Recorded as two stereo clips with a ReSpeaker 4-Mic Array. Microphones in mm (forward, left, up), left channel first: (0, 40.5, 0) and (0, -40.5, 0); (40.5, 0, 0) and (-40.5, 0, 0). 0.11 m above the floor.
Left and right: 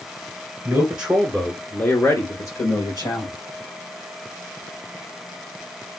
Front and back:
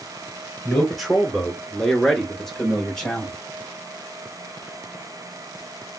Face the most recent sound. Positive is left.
turn(degrees=85)